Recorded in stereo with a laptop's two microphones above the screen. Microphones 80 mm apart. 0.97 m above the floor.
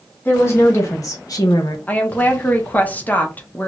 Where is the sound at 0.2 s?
30° left (ahead or behind), 1.3 m; by 1.8 s 60° left (ahead or behind), 1.0 m.